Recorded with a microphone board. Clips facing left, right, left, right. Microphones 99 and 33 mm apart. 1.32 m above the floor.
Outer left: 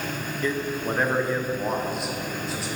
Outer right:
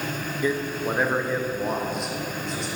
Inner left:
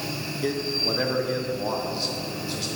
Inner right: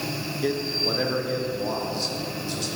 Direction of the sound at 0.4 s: 10° right (ahead or behind).